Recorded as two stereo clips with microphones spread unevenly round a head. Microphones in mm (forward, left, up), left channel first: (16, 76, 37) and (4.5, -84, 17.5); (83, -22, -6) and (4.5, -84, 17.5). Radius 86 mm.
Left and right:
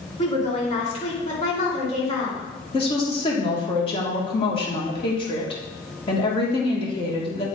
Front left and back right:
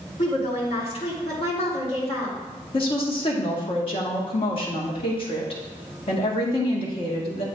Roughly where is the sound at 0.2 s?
Ahead left.